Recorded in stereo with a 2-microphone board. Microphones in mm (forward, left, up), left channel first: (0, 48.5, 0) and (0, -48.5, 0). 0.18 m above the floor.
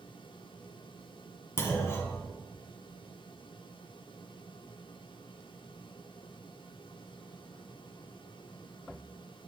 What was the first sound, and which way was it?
A clunk, 25° left (ahead or behind).